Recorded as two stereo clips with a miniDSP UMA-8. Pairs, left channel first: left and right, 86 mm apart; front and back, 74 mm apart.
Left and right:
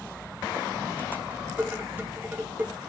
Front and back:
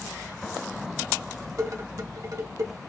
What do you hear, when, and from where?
1.6 s dishes clattering: 160° right, 0.9 m